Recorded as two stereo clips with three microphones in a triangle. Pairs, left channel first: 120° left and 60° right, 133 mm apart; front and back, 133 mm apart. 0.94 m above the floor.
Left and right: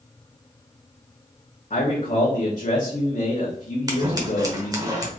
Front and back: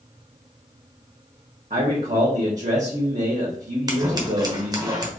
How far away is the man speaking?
About 1.2 m.